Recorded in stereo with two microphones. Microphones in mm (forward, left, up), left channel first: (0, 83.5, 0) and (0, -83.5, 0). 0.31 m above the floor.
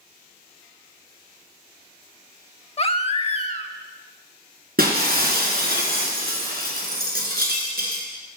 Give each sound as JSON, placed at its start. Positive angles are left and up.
{"t": 2.8, "sound": "a baby crying", "side_deg": 40, "distance_m": 0.5}
{"t": 4.8, "sound": "breaking glass", "side_deg": -65, "distance_m": 2.5}